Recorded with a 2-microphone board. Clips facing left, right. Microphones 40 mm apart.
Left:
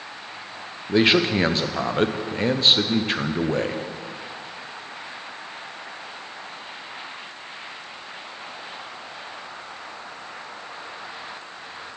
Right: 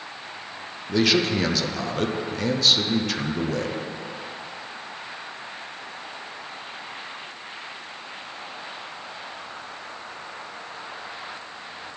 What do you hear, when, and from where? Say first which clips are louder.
0.9 s a man speaking: left 3 dB; 30° left (ahead or behind), 0.6 m